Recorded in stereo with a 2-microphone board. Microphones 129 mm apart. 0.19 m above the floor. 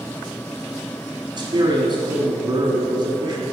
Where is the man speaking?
40° right (ahead or behind), 1.5 m.